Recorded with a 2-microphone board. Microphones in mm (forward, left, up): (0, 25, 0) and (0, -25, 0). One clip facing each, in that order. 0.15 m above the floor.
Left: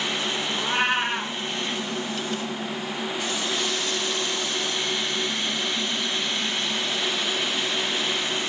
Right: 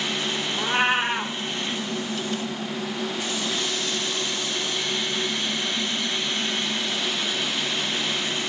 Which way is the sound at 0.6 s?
5° right (ahead or behind).